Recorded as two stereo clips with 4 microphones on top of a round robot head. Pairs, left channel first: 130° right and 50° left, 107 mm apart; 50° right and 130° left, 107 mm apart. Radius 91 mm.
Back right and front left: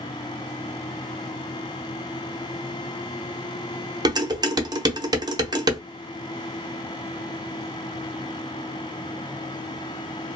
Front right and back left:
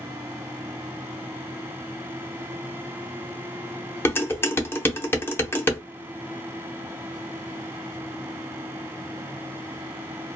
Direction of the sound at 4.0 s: 15° left.